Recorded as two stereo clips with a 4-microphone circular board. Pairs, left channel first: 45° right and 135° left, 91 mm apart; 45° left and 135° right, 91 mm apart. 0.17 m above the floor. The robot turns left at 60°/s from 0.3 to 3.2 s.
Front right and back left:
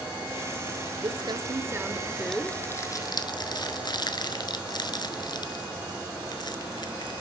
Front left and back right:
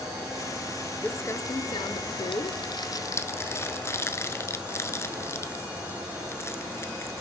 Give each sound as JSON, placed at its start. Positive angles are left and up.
{"t": 1.0, "sound": "crumpling", "azimuth_deg": 115, "distance_m": 0.6}